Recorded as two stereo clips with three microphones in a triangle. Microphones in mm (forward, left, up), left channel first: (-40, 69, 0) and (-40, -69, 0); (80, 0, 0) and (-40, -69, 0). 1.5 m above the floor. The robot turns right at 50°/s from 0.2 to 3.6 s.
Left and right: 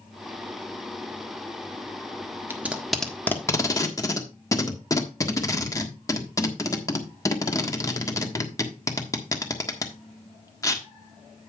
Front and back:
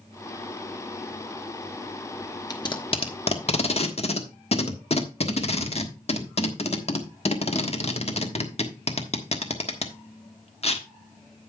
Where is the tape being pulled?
20° right, 1.3 m; by 10.8 s 35° left, 1.3 m.